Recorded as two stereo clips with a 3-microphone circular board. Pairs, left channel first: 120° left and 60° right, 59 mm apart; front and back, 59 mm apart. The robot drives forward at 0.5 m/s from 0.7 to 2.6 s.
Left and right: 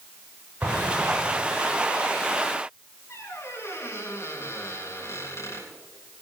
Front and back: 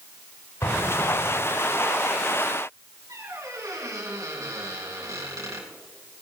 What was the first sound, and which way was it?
An explosion, 5° right.